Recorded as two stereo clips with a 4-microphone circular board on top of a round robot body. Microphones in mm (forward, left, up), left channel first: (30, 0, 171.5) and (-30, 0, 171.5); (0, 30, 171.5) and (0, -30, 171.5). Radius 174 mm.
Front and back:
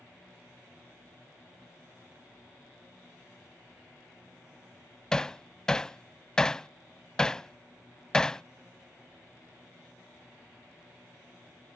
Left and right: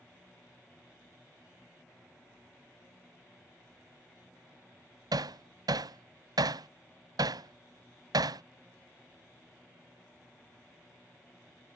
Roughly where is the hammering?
Right.